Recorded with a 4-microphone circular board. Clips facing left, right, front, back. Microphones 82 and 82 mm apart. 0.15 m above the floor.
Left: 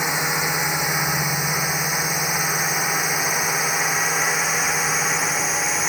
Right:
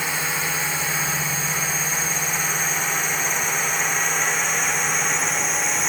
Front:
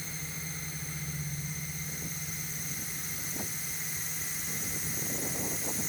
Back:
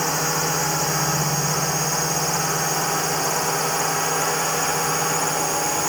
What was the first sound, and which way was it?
A drone, 165° left.